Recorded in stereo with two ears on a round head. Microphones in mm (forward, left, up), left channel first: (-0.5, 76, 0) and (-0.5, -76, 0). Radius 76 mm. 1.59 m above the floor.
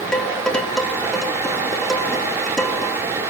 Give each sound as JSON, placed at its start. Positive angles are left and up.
{"t": 0.1, "sound": "dishes clattering", "side_deg": 5, "distance_m": 2.0}